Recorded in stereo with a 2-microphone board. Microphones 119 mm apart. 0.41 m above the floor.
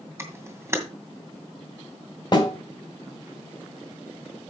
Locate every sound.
0.2 s a camera shutter: 20° right (ahead or behind), 2 m
2.3 s a snare drum: 40° left (ahead or behind), 3 m